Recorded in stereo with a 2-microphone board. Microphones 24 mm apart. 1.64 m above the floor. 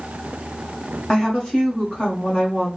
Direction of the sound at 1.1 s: 30° left (ahead or behind).